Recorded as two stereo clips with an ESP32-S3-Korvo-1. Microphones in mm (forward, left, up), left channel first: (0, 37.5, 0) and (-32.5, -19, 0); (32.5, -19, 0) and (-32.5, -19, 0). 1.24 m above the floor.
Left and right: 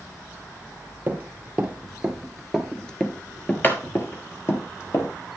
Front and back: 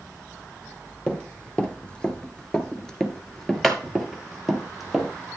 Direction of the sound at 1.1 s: 70° right.